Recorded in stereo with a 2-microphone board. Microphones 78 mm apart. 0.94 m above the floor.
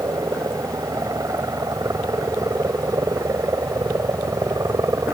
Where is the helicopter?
50° right (ahead or behind).